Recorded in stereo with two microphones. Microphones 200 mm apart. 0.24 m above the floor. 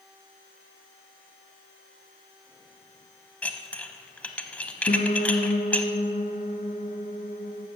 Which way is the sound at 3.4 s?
5° left (ahead or behind).